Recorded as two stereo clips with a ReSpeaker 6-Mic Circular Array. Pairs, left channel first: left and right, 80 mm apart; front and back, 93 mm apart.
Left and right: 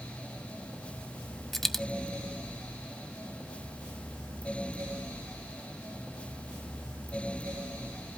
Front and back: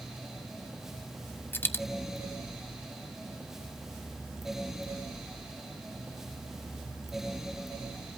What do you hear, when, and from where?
1.5 s a dropped coin: 10° left, 0.5 m